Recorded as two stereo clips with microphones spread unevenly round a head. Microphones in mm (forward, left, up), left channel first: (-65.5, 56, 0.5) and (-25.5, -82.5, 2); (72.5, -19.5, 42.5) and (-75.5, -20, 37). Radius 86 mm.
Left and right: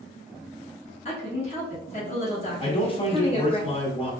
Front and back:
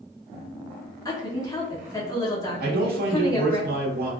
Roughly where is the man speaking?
Behind.